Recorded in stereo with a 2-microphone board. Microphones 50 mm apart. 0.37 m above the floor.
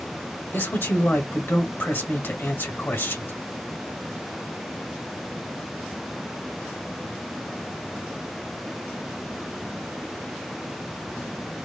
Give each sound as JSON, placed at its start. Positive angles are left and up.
{"t": 0.5, "sound": "a man speaking", "side_deg": 45, "distance_m": 1.2}